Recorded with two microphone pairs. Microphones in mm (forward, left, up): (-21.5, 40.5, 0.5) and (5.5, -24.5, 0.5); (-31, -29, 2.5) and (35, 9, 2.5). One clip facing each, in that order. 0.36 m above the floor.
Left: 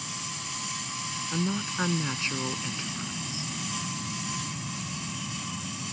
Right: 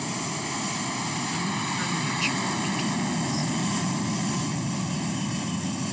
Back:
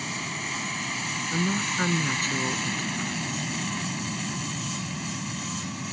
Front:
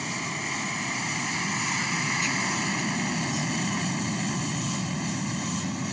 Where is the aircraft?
50° right; by 5.9 s 35° right.